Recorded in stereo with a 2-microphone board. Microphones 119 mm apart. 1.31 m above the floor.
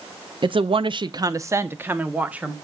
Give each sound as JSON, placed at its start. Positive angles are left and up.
{"t": 0.4, "sound": "a woman speaking", "side_deg": -45, "distance_m": 0.5}